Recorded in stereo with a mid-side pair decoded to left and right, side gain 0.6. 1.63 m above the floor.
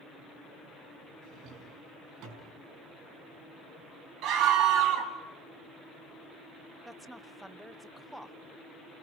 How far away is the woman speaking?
About 0.8 m.